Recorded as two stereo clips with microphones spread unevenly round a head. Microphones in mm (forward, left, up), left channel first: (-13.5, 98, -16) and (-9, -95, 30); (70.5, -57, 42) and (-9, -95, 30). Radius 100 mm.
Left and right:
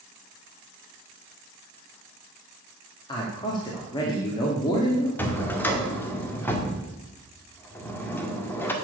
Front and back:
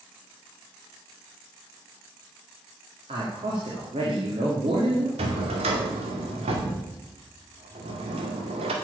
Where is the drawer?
175° left, 1.8 m.